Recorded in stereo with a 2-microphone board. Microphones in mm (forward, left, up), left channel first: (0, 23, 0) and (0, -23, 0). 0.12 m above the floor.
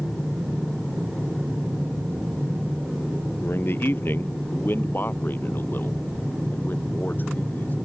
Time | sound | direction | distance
3.4 | a man speaking | 55° left (ahead or behind) | ?